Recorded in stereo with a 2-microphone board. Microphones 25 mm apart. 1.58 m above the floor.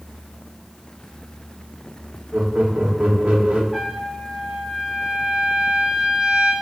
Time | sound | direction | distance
2.3 | laughter | 80° right | 3 m
3.7 | a trumpet | 15° right (ahead or behind) | 3.5 m